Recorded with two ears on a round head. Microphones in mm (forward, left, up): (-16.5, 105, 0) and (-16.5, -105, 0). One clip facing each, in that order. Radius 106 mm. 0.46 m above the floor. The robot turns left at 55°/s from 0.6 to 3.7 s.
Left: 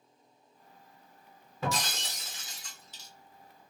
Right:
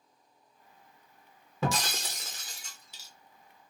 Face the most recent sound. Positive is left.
turn(degrees=150)